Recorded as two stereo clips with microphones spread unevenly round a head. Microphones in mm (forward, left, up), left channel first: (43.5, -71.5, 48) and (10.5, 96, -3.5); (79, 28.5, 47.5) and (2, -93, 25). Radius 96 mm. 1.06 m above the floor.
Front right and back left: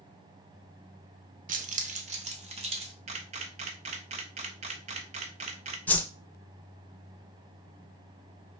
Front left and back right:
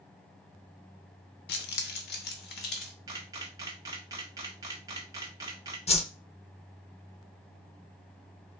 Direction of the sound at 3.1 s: 165° left.